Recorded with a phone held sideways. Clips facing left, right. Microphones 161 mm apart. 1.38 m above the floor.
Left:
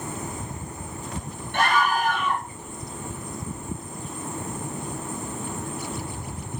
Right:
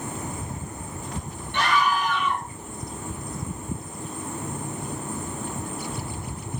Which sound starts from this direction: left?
A scream, at 1.5 s.